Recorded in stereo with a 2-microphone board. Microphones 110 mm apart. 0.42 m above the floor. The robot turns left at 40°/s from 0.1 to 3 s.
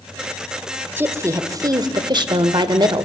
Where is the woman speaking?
30° right, 1.1 m; by 3.1 s 110° right, 1.1 m.